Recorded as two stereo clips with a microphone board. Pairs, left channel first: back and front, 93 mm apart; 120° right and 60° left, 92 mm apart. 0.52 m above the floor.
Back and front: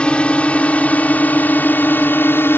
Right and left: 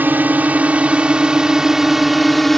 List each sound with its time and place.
0.0 s a drone: 110° left; by 2.6 s 155° left